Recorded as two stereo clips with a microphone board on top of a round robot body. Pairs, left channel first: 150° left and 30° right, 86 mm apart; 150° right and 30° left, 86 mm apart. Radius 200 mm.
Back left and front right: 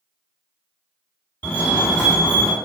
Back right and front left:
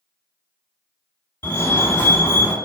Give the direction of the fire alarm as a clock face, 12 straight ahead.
6 o'clock.